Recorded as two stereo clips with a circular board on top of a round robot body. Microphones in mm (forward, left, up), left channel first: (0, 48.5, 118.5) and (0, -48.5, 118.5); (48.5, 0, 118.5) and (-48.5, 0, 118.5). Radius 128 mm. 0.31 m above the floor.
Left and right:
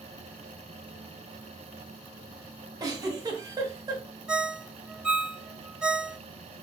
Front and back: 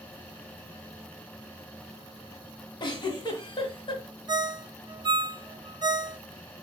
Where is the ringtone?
170° right, 0.6 m.